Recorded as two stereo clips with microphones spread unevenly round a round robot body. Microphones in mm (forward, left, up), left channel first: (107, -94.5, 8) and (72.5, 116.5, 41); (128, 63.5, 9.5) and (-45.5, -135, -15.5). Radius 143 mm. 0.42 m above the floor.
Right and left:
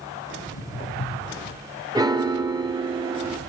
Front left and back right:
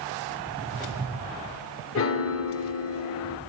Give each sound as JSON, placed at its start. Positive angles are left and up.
{"t": 0.4, "sound": "footsteps", "azimuth_deg": -30, "distance_m": 7.0}
{"t": 1.9, "sound": "a piano", "azimuth_deg": 25, "distance_m": 0.9}